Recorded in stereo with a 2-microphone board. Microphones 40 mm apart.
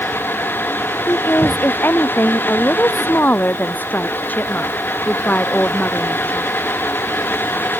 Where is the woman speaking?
55° left (ahead or behind); by 6.5 s 35° left (ahead or behind).